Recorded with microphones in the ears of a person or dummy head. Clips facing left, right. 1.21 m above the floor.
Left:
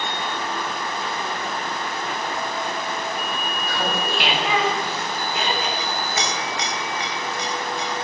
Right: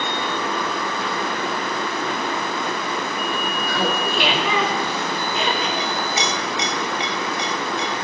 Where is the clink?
15° right (ahead or behind), 1.8 m.